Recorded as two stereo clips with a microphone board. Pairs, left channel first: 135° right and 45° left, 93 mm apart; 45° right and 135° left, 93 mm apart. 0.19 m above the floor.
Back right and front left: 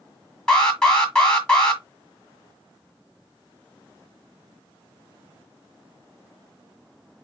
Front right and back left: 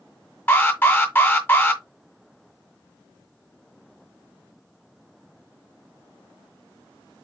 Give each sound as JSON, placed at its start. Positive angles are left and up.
{"t": 0.5, "sound": "an alarm", "azimuth_deg": -65, "distance_m": 1.7}